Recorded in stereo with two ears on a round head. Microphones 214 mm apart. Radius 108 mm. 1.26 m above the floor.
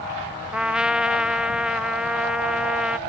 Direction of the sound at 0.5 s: 5° right (ahead or behind).